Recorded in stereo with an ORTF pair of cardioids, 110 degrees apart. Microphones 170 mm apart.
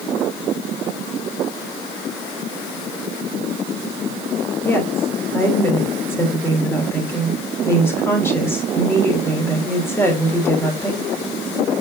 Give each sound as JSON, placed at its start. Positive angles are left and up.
{"t": 4.6, "sound": "a woman speaking", "azimuth_deg": 15, "distance_m": 3.5}